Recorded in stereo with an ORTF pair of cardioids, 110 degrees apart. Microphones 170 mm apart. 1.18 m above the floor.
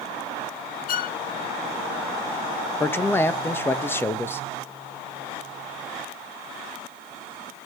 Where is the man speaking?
15° left, 1.4 m.